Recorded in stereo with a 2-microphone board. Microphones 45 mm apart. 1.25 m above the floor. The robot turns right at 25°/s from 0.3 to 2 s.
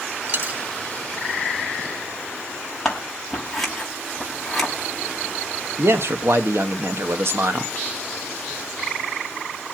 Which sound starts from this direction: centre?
Scissors, at 2.9 s.